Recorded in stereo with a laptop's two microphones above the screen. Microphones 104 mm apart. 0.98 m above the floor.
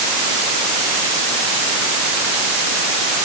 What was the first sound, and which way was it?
Only background noise.